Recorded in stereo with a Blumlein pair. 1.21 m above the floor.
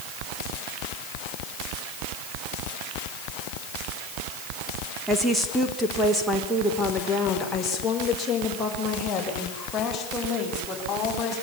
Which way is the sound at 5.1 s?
5° right.